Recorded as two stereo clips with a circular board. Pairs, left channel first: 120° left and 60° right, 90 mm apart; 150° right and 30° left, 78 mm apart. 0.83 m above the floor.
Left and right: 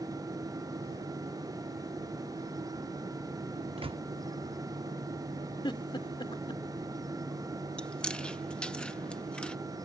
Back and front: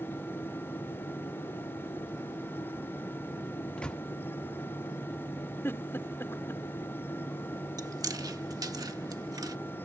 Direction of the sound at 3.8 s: 70° right.